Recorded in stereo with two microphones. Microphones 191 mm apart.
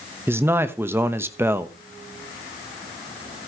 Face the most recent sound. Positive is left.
turn(degrees=-10)  # may be behind; listen again after turning